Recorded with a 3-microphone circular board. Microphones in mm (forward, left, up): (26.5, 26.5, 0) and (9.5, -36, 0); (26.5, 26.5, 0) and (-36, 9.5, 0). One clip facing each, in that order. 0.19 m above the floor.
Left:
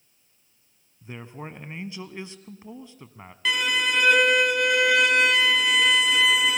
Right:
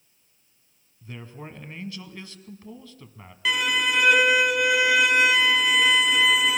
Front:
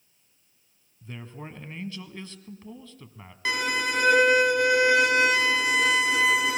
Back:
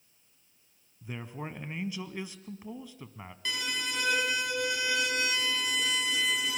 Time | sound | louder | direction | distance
1.0 | a man speaking | left 2 dB, back 1 dB | 130° left | 1.1 m
3.5 | a violin | right 1 dB, front 8 dB | 20° right | 0.7 m